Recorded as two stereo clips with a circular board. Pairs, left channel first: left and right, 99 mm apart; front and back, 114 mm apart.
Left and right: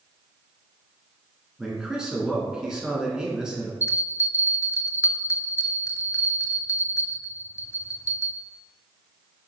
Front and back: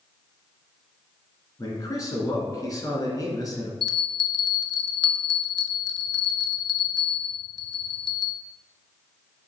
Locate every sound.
1.6 s a man speaking: 10° right, 1.9 m
3.8 s a bell: 145° left, 0.6 m